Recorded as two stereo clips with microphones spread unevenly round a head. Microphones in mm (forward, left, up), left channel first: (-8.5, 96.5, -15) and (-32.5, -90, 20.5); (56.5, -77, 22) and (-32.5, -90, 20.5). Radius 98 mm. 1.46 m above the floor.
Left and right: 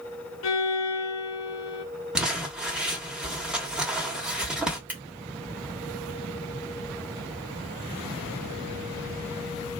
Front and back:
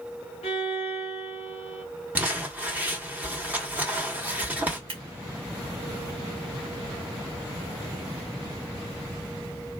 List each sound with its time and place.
0.4 s a violin: 55° left, 0.8 m
2.1 s crumpling: 140° right, 1.2 m
4.9 s scissors: straight behind, 2.0 m